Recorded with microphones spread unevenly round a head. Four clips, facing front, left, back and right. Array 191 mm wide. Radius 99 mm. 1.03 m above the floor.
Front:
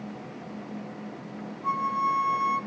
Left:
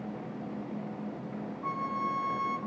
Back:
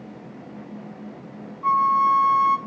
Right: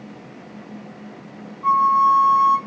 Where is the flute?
120° right, 0.6 m.